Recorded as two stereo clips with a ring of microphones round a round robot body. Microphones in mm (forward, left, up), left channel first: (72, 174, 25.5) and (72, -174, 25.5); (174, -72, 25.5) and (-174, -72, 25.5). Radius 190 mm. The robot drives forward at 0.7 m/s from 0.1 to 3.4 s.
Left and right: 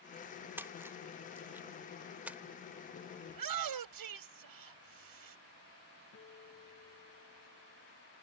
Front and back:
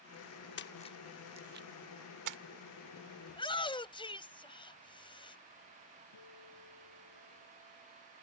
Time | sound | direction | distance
0.6 | a splash | 10° right | ?
3.3 | a shout | 75° right | ?
6.1 | a guitar | 35° left | ?